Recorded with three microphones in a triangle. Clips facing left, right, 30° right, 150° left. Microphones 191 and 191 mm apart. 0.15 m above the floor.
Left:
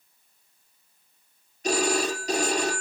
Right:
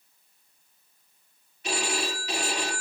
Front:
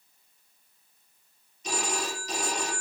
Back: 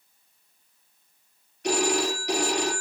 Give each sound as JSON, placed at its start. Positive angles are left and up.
{"t": 1.6, "sound": "a phone ringing", "azimuth_deg": 140, "distance_m": 2.0}